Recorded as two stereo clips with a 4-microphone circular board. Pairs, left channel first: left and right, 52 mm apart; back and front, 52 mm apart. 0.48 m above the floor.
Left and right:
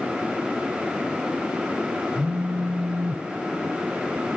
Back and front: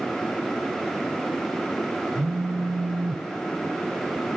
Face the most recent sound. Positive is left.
turn(degrees=-40)